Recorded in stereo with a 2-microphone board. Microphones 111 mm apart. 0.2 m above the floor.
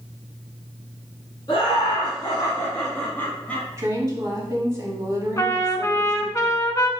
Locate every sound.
1.5 s laughter: 45° left (ahead or behind), 1.8 m; by 3.7 s 10° left (ahead or behind), 1.6 m
3.8 s a woman speaking: 25° right (ahead or behind), 1.1 m
5.4 s a trumpet: 30° left (ahead or behind), 0.5 m